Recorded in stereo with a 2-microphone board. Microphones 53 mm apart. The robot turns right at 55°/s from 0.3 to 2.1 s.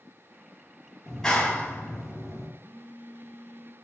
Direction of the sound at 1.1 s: 5° left.